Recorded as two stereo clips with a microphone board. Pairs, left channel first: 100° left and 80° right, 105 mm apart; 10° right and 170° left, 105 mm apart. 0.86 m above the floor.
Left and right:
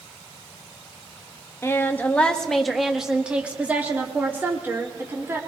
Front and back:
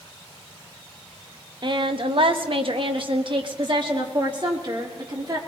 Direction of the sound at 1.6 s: 150° left.